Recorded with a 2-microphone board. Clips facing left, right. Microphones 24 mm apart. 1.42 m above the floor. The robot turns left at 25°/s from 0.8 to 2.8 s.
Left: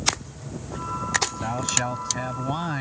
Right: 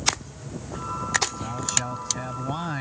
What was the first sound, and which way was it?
A man speaking, 35° left.